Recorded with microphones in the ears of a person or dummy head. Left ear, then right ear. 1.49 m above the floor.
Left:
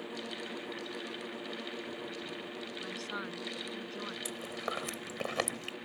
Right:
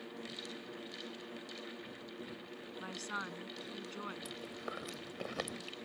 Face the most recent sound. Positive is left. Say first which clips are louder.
# left 6 dB
turn(degrees=40)  # may be behind; listen again after turning